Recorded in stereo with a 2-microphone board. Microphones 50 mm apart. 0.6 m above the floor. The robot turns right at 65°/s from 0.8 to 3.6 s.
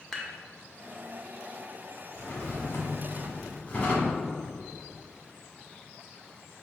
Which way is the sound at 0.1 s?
Centre (ahead or behind).